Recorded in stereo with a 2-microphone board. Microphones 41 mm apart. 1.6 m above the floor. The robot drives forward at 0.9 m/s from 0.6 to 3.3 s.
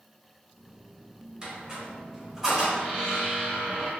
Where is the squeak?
20° right (ahead or behind), 1.7 m; by 3.9 s 10° right (ahead or behind), 3 m.